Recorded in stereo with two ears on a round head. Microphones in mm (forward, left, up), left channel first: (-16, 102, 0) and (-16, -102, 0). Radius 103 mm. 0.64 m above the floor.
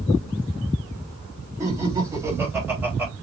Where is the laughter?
15° right (ahead or behind), 3 m; by 3.1 s 10° right (ahead or behind), 2.5 m.